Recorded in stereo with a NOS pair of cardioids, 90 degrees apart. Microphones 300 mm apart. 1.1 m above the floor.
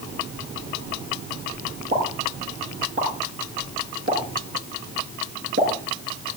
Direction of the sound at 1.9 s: 40° right.